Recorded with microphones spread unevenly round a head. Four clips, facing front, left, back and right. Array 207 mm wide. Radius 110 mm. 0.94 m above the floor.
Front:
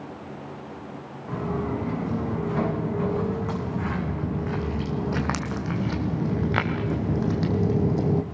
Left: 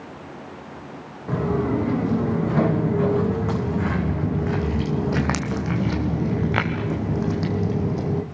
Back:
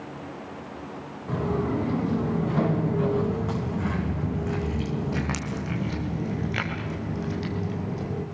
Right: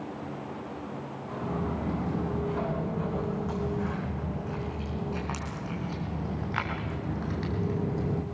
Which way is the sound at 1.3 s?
100° left.